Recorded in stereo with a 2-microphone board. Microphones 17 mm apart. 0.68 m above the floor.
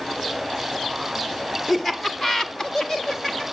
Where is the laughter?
20° left (ahead or behind), 2 m; by 3.4 s 25° left (ahead or behind), 1.6 m.